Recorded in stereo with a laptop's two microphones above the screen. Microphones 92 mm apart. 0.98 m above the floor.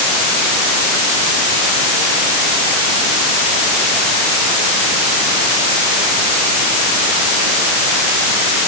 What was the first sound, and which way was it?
Only background noise.